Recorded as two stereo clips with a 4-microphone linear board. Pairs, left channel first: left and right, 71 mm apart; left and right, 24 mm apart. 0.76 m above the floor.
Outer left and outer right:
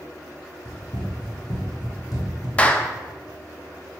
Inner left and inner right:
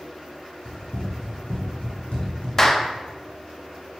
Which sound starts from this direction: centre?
A clap, at 2.6 s.